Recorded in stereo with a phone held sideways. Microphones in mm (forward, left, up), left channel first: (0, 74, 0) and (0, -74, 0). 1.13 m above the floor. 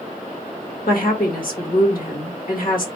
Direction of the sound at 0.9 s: 80° left.